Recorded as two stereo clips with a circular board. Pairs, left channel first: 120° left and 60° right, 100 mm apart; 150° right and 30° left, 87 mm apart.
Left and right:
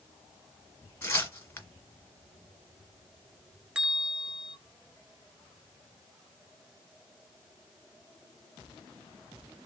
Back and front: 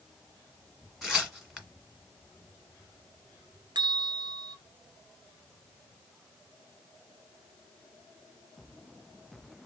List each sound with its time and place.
1.0 s tearing paper: 115° left, 1.5 m
3.8 s a bell: 20° left, 1.1 m